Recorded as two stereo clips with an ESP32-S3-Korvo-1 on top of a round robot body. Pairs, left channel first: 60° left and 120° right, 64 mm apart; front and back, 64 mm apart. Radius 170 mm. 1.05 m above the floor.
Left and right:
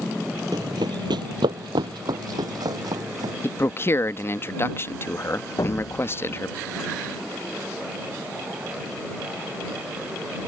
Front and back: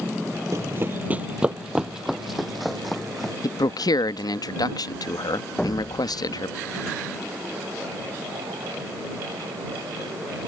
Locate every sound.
0.5 s running footsteps: 140° right; by 3.3 s 85° right
3.4 s a man speaking: 5° left
5.6 s an explosion: 80° left